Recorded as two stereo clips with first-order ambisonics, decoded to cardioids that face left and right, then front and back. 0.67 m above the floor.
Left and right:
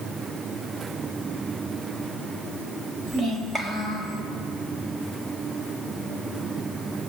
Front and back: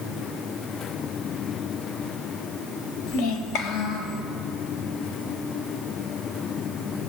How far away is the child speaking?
About 2.0 m.